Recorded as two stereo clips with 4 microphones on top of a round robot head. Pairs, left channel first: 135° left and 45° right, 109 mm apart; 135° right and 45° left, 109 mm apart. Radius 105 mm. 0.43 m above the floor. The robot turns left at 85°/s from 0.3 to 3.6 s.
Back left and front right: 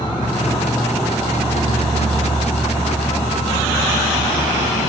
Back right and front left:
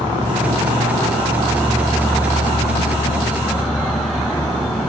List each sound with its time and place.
0.0 s an insect: 90° left, 0.9 m; by 4.9 s 165° left, 0.9 m